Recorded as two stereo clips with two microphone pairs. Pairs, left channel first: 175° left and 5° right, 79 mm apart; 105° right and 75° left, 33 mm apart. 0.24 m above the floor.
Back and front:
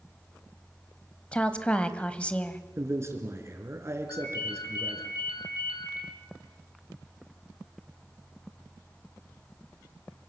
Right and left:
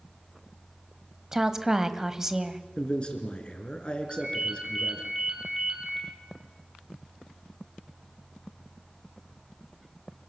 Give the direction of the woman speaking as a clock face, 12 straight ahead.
8 o'clock.